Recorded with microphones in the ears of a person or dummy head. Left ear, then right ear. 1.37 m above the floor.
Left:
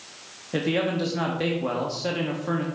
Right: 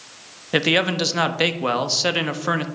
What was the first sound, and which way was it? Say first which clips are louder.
A man speaking: right 6 dB; 60° right (ahead or behind).